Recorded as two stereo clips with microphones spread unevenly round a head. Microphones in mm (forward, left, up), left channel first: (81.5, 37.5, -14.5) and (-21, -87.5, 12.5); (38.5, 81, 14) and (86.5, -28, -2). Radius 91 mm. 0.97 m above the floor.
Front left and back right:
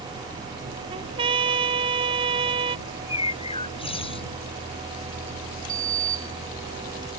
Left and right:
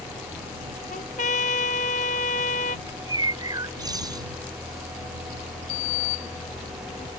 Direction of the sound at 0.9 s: 165° left.